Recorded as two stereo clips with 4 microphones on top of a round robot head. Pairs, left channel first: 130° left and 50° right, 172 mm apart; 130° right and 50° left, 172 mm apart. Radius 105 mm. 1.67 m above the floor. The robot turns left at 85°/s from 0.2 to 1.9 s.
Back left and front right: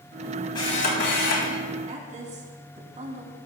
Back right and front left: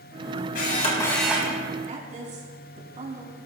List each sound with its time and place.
0.6 s a camera shutter: 160° right, 3.5 m; by 1.5 s 115° left, 3.5 m
1.9 s a woman speaking: 5° left, 3.5 m; by 3.4 s straight ahead, 3.5 m